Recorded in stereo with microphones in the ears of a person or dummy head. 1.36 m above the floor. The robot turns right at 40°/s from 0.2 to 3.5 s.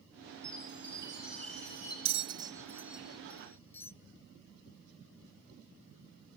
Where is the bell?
30° right (ahead or behind), 0.6 m; by 3.9 s 15° left (ahead or behind), 0.6 m.